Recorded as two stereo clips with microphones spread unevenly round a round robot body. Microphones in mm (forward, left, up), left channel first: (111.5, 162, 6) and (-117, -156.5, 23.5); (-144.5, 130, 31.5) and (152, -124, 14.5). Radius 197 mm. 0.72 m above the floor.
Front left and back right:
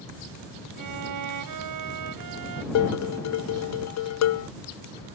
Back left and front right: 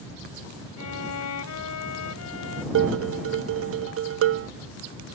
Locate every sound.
0.8 s a violin: 170° right
2.8 s dishes clattering: 10° left